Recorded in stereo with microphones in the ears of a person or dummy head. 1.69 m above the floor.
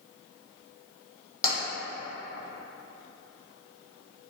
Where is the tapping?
25° left (ahead or behind), 1.4 m.